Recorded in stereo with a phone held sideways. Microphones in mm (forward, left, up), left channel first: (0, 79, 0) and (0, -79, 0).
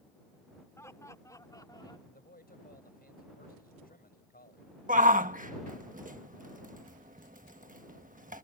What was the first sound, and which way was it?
Laughter, 15° left (ahead or behind).